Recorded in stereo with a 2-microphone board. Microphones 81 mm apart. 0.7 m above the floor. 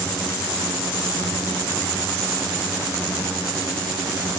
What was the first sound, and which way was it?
Only background noise.